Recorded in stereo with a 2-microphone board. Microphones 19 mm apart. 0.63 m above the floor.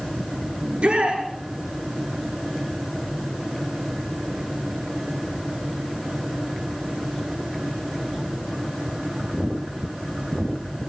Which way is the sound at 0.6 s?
75° right (ahead or behind).